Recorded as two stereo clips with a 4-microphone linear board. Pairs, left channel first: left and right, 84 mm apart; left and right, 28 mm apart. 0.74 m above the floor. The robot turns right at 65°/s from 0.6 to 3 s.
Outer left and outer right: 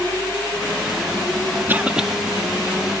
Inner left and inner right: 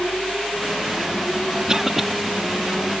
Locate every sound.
1.7 s a cough: 25° right (ahead or behind); by 2.1 s 5° right (ahead or behind)